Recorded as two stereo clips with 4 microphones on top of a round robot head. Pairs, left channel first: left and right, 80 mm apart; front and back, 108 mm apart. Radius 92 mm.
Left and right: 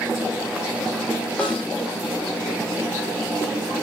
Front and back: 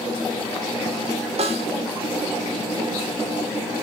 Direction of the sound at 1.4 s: 170° left.